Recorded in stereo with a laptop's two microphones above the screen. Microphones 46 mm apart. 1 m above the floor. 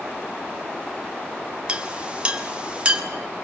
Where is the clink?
25° right (ahead or behind), 2 m.